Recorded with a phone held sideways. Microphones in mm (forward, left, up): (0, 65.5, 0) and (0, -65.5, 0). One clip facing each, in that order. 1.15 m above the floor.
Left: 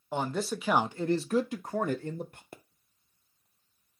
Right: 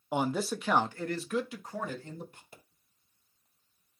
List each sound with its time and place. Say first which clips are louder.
0.1 s a man speaking: right 1 dB; 15° right (ahead or behind), 0.7 m; by 2.4 s 60° left (ahead or behind), 0.9 m
2.5 s a pop: left 6 dB; 55° left (ahead or behind), 0.6 m